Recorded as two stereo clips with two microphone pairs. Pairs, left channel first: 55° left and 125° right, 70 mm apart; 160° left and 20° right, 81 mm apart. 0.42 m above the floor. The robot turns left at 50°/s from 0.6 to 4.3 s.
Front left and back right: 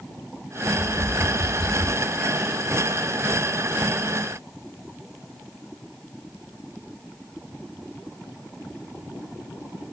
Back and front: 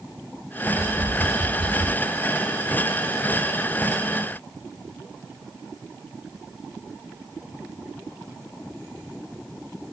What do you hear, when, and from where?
0.7 s tapping: 35° left, 1.9 m; by 1.9 s 30° right, 1.9 m